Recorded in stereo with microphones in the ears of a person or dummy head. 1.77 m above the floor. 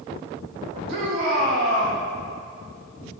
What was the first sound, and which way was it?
A shout, 55° right (ahead or behind).